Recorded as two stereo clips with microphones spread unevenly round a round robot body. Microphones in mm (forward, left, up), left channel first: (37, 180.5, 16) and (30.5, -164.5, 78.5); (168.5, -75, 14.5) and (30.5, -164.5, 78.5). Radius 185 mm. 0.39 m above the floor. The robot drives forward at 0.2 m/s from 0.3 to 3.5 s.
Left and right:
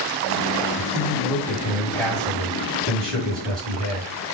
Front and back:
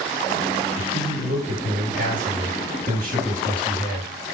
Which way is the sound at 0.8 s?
175° left.